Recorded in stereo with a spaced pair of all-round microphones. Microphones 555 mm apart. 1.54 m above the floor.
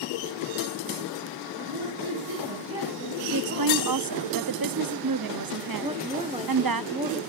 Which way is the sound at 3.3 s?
40° right (ahead or behind).